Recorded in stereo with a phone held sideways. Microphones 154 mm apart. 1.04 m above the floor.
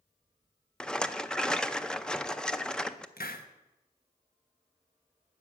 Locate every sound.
0.8 s a rattle: 5° left (ahead or behind), 0.5 m
3.2 s a hiss: 75° left (ahead or behind), 1.1 m